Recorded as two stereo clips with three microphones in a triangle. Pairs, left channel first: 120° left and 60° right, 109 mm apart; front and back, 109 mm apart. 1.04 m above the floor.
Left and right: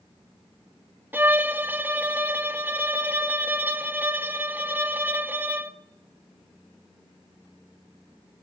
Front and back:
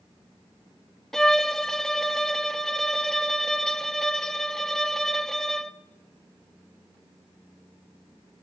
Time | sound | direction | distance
1.1 | a violin | 80° right | 0.7 m